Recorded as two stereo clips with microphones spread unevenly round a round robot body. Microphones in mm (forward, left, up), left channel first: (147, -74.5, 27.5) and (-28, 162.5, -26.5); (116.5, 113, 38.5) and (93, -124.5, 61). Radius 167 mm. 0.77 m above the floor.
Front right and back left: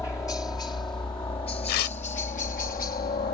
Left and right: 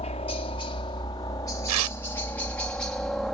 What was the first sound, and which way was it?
A helicopter, 30° left.